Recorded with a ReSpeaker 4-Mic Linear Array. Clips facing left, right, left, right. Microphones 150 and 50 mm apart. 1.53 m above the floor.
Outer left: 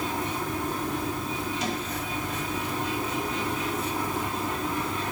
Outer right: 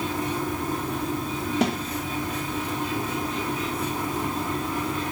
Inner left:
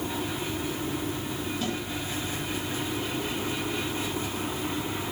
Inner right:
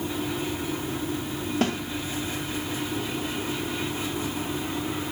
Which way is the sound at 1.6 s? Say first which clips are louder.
Outer right 8 dB, inner right 7 dB; 60° right (ahead or behind).